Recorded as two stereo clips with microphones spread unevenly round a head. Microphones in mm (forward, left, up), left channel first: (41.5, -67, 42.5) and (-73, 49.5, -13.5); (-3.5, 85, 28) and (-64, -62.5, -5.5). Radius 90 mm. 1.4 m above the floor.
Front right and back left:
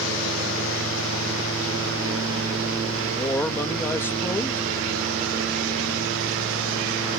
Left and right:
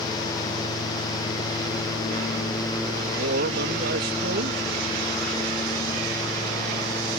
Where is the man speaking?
125° right.